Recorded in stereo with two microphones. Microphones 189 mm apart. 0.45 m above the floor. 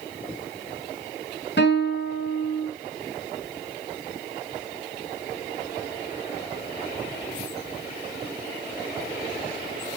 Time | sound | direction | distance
1.6 | a guitar | 65° left (ahead or behind) | 7.5 m